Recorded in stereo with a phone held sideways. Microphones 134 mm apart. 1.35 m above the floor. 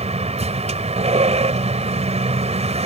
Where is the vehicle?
55° right (ahead or behind).